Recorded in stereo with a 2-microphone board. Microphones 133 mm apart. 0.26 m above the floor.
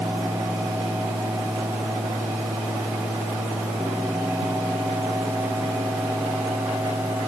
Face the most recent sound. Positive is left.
No sound to turn to.